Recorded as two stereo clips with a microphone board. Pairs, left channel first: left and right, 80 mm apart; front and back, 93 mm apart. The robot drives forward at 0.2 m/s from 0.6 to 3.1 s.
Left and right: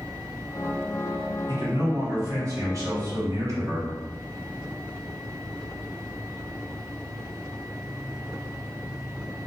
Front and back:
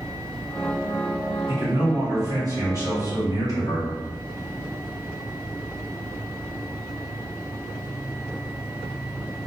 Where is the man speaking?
120° right, 1.2 m; by 4.0 s 135° right, 1.4 m.